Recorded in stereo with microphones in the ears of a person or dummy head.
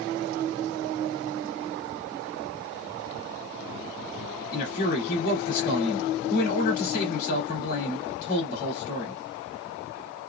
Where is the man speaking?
45° left (ahead or behind), 2.5 m.